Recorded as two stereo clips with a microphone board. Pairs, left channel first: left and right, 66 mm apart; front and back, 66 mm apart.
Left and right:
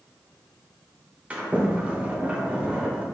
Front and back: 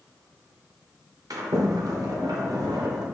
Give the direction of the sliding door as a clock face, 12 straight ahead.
5 o'clock.